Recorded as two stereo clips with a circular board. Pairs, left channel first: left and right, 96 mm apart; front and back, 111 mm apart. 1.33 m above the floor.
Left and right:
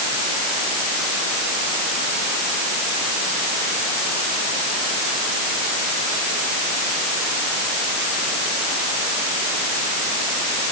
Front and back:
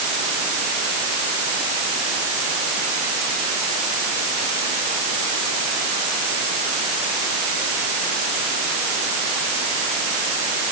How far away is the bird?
No bird in this recording.